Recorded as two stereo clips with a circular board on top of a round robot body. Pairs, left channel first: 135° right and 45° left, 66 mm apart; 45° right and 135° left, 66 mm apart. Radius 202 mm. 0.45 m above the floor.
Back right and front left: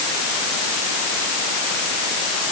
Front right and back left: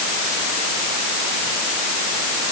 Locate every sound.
Only background noise.